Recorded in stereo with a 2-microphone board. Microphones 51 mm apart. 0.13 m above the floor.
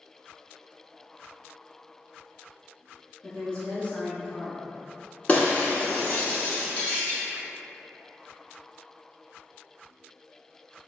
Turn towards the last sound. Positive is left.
turn(degrees=35)  # may be behind; listen again after turning